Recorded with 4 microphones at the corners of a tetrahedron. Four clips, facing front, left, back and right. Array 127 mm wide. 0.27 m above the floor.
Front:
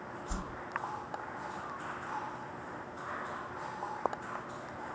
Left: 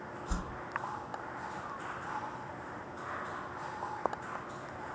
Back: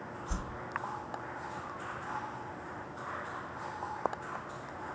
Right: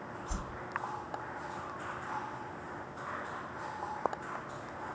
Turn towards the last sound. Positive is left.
turn(degrees=120)